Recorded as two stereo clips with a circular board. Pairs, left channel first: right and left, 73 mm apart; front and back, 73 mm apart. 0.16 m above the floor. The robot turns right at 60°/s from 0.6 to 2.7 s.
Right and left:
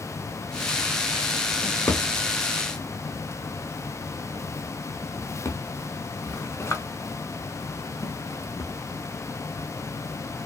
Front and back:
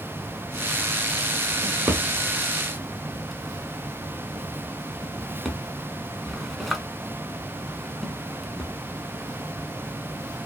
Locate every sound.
1.6 s a drawer: 155° right, 0.7 m; by 8.7 s 90° right, 0.7 m